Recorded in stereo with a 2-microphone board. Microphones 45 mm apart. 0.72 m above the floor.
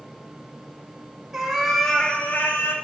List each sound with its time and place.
1.3 s a cat meowing: 10° right (ahead or behind), 1.5 m; by 2.8 s 70° left (ahead or behind), 1.1 m